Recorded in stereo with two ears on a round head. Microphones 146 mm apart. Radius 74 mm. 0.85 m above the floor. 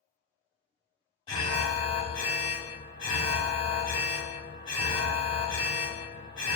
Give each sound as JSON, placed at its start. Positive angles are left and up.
{"t": 1.3, "sound": "an alarm", "side_deg": 30, "distance_m": 1.0}